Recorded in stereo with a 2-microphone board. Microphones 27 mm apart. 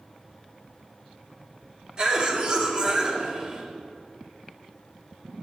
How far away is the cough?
About 1.4 m.